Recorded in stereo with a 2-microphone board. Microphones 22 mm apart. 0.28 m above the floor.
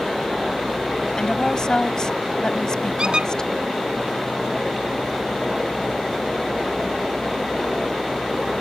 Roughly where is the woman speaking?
Left.